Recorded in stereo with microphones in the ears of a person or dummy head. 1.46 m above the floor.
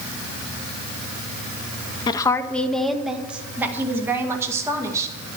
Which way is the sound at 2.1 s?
25° left (ahead or behind).